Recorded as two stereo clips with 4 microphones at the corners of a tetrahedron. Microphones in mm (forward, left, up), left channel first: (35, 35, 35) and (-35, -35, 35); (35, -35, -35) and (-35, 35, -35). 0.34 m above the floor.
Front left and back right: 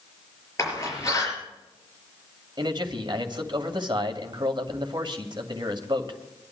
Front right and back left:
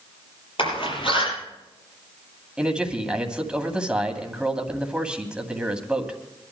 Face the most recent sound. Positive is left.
turn(degrees=-145)